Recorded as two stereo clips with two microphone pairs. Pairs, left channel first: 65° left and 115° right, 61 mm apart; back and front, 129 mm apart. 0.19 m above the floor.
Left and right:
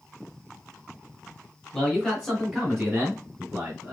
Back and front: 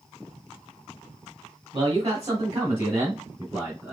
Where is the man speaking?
20° right, 2.0 m; by 3.9 s 75° right, 2.5 m.